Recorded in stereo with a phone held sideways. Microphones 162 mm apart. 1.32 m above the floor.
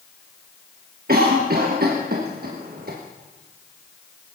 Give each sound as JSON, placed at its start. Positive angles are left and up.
{"t": 1.1, "sound": "a cough", "side_deg": -75, "distance_m": 1.3}